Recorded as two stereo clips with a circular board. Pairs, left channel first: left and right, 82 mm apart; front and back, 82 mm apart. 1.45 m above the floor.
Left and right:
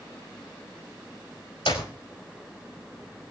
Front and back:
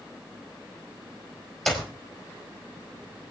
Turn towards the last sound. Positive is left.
turn(degrees=90)